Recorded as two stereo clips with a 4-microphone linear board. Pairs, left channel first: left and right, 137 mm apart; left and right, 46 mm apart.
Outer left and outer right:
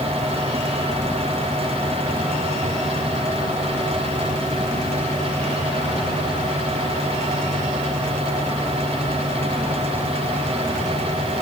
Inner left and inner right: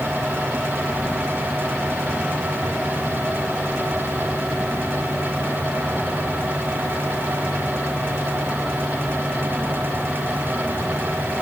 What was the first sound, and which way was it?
Only background noise.